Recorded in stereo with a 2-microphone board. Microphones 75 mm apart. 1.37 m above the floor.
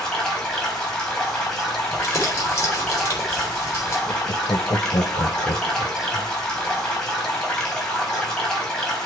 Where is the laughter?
80° left, 1.1 m.